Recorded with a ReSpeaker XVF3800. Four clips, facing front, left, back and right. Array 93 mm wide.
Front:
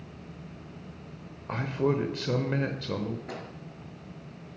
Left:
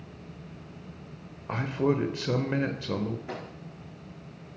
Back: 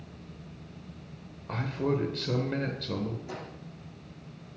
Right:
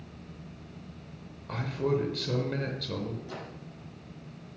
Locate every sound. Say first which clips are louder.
1.5 s a man speaking: left 3 dB, front 2 dB; 55° left, 0.9 m
3.3 s a microwave: left 3 dB, front 1 dB; 50° left, 4 m